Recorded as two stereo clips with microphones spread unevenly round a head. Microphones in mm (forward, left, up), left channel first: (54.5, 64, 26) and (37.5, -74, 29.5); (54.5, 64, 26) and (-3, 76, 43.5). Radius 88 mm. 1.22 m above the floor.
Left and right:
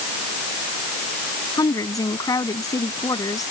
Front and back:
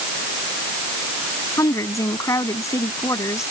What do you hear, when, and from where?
1.6 s a woman speaking: 20° left